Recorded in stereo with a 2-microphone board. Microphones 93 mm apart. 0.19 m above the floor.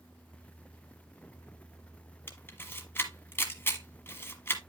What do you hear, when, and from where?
2.3 s a camera shutter: 25° left (ahead or behind), 1.2 m